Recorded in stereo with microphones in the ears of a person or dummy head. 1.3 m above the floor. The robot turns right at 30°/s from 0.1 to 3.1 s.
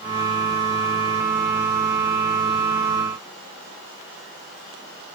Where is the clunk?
No clunk in this recording.